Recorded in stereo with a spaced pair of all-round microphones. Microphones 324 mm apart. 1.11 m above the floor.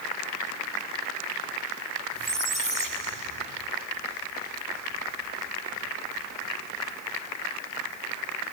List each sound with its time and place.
2.1 s a squeak: 75° right (ahead or behind)